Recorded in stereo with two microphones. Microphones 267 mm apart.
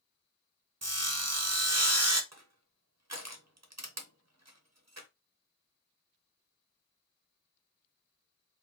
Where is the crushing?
75° right (ahead or behind), 0.9 m.